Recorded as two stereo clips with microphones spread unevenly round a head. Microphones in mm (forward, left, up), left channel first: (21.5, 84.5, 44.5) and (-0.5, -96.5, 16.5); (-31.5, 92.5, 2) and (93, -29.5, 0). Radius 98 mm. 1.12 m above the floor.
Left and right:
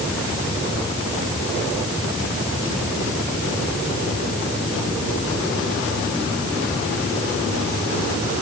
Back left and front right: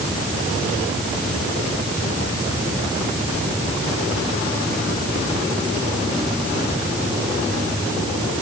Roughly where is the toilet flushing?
I don't hear a toilet flushing.